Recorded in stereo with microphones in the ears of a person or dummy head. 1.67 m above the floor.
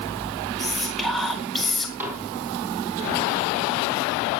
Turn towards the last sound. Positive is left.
turn(degrees=-15)  # may be behind; listen again after turning